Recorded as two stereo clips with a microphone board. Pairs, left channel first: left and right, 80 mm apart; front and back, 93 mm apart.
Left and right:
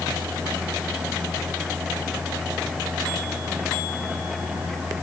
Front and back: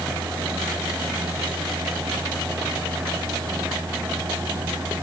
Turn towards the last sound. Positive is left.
No sound to turn to.